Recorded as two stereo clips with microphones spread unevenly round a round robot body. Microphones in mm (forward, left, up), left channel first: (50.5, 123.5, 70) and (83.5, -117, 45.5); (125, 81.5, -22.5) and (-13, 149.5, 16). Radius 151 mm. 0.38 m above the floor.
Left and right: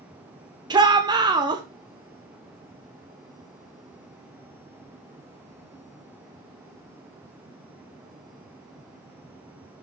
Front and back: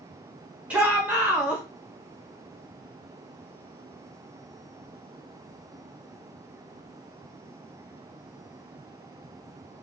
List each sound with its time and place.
0.7 s a shout: 100° right, 0.9 m